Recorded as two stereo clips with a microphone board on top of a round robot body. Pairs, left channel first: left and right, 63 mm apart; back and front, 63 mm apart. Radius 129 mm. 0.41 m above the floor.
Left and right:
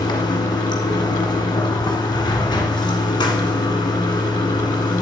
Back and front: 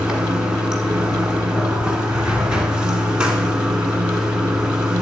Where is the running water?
80° left, 1.4 m.